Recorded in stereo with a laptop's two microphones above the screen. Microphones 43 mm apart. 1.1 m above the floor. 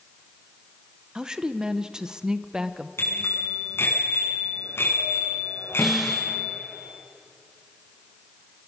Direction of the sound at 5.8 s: 5° right (ahead or behind).